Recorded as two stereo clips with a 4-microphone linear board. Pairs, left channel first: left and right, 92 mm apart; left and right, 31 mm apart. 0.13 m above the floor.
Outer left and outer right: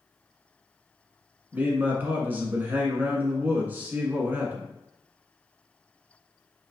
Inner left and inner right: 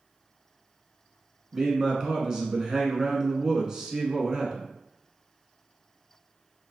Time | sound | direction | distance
1.5 | a man speaking | 20° right (ahead or behind) | 1.1 m